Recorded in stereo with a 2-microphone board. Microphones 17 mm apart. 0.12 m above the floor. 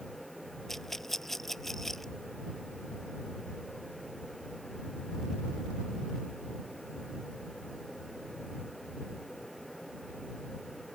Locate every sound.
0.7 s a rattle: 15° left (ahead or behind)